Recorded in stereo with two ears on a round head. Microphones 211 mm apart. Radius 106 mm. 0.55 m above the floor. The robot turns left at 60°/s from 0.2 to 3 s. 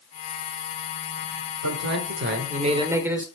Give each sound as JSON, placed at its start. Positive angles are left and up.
{"t": 1.6, "sound": "a man speaking", "azimuth_deg": -90, "distance_m": 1.5}